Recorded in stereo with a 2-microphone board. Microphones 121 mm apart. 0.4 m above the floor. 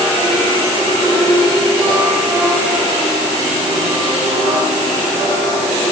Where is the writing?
I don't hear writing.